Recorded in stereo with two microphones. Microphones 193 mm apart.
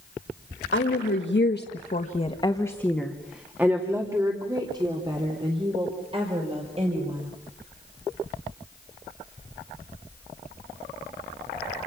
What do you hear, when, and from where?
0.7 s a woman speaking: 85° left, 1.7 m; by 7.3 s 30° right (ahead or behind), 5.5 m